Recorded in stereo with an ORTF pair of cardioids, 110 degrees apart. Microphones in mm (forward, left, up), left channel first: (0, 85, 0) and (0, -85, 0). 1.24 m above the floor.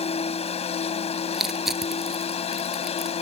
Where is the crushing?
Straight ahead.